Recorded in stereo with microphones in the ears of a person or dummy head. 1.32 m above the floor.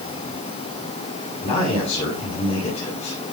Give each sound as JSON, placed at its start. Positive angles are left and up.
{"t": 1.4, "sound": "a man speaking", "side_deg": 30, "distance_m": 9.5}